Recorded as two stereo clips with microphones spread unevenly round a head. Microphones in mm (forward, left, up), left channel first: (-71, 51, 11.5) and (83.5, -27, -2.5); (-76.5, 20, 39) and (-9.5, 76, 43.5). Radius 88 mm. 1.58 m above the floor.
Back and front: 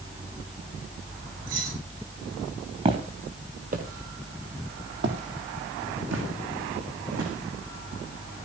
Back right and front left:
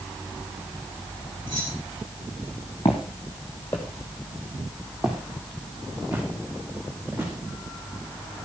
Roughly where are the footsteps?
Right.